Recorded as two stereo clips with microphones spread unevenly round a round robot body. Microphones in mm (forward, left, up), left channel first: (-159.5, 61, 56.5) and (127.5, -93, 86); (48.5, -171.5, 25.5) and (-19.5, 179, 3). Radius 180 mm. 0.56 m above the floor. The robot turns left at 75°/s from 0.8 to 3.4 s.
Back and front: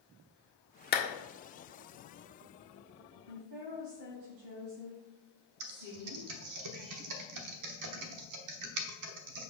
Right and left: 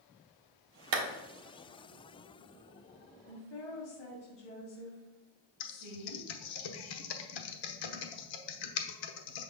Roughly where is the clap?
Left.